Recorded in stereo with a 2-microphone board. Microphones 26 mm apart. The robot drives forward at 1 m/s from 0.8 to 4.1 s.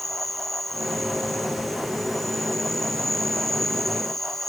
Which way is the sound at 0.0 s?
5° left (ahead or behind).